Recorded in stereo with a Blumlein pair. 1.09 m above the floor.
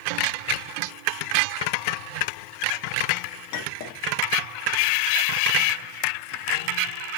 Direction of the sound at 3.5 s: 45° left.